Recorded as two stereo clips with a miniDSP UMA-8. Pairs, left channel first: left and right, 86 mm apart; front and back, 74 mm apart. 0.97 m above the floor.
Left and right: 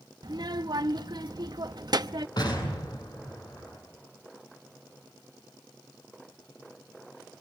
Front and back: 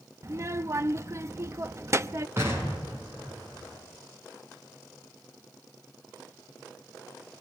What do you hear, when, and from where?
0.2 s a child speaking: 125° right, 0.8 m
2.4 s an explosion: 125° left, 7 m